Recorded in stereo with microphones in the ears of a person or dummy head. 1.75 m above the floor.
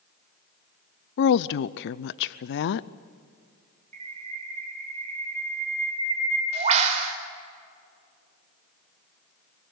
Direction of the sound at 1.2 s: 60° left (ahead or behind).